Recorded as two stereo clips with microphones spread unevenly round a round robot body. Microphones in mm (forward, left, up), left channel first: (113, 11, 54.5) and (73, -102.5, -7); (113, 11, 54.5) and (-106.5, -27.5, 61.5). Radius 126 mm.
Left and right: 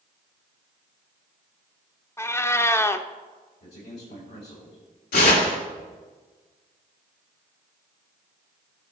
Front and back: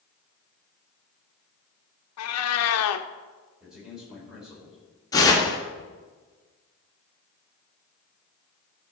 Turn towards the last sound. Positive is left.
turn(degrees=80)